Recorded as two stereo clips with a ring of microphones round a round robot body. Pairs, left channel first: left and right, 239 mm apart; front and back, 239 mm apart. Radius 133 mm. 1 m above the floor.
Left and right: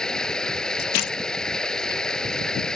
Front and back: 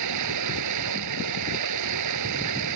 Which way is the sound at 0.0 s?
175° left.